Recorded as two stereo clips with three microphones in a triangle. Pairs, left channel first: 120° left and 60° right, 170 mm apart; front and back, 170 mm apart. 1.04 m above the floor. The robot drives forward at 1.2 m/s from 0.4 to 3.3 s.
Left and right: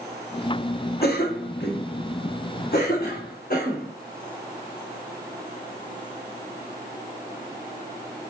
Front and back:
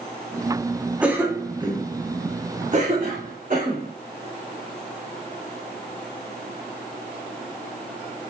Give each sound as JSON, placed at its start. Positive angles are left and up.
{"t": 1.0, "sound": "a cough", "azimuth_deg": 95, "distance_m": 2.0}